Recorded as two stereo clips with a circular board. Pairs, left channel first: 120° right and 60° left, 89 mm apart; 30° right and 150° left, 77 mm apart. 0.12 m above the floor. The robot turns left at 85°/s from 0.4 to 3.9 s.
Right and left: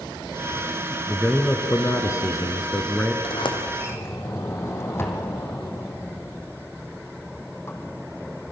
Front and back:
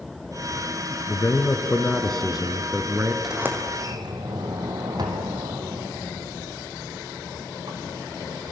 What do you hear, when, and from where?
1.1 s a man speaking: 20° right, 1.5 m; by 3.1 s 165° left, 1.5 m
3.2 s a sliding door: 125° right, 2.5 m; by 7.8 s straight behind, 2.5 m